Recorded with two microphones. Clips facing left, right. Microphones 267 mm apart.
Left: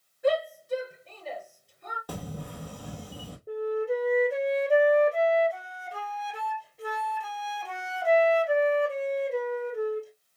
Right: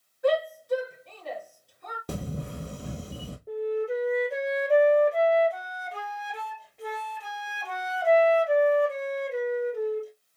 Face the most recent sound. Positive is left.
turn(degrees=0)  # may be behind; listen again after turning